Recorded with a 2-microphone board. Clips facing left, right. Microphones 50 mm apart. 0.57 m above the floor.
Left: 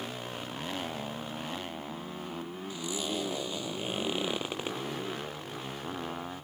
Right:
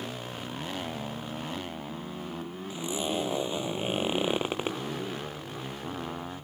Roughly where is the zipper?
Right.